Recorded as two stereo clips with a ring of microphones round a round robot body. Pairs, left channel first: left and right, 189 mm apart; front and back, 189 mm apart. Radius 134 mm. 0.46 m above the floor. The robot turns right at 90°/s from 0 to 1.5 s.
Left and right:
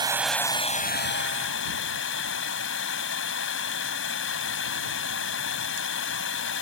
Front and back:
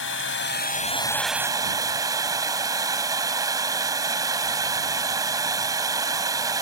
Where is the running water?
25° right; by 6.6 s 110° left.